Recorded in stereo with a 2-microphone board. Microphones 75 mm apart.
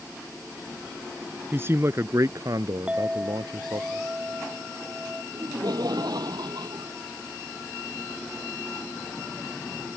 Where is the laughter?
65° right (ahead or behind).